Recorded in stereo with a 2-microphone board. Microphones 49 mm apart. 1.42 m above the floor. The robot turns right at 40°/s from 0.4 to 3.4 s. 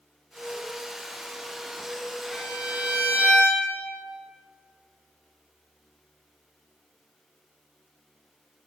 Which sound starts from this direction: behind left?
A violin, at 2.3 s.